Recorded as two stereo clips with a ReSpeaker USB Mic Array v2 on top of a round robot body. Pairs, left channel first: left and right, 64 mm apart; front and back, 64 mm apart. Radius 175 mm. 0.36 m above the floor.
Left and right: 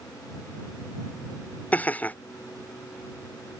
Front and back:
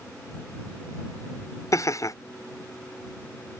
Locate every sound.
1.7 s laughter: 30° left